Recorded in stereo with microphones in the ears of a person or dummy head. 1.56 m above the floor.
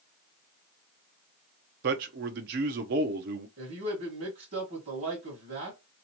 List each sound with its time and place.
1.8 s a man speaking: 50° right (ahead or behind), 0.7 m
3.6 s a man speaking: 40° right (ahead or behind), 1.7 m